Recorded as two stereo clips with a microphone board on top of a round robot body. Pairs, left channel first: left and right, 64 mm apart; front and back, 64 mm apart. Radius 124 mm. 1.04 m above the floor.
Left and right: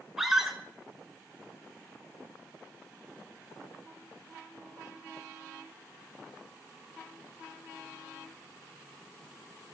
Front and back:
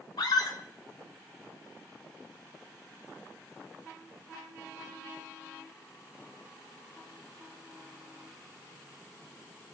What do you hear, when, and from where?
0.2 s a scream: 5° right, 3.5 m